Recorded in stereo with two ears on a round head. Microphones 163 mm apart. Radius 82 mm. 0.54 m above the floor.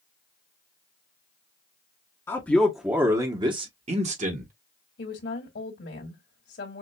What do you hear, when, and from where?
2.3 s a man speaking: 15° left (ahead or behind), 0.9 m; by 4.5 s 50° right (ahead or behind), 1.4 m
5.0 s a woman speaking: 65° left (ahead or behind), 2 m